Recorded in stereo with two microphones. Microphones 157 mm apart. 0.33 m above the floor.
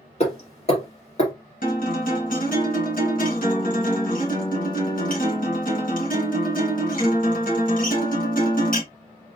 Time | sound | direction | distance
0.2 | hammering | 40° left (ahead or behind) | 2.5 m
1.6 | a guitar | 65° left (ahead or behind) | 2.5 m